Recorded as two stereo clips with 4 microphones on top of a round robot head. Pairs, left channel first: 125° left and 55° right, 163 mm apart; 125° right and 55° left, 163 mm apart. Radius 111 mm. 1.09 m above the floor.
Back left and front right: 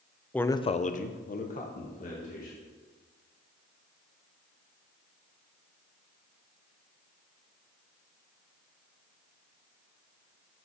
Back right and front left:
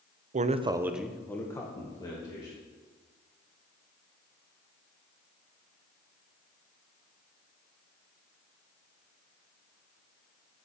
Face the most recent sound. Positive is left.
turn(degrees=170)